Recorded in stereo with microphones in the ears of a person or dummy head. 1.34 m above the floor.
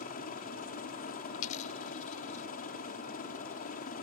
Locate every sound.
0.0 s a helicopter: 45° left (ahead or behind)
1.3 s a dropped coin: 40° left (ahead or behind)